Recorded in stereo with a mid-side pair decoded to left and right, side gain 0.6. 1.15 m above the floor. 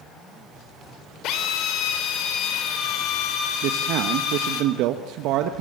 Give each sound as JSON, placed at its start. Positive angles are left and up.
{"t": 1.2, "sound": "a drill", "azimuth_deg": 65, "distance_m": 4.0}
{"t": 3.6, "sound": "a man speaking", "azimuth_deg": -70, "distance_m": 1.5}